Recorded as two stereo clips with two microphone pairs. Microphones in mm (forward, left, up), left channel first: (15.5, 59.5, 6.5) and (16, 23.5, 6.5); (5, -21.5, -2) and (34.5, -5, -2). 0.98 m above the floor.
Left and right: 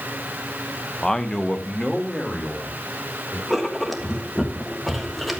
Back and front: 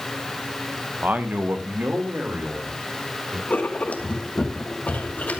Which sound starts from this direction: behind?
Writing, at 3.5 s.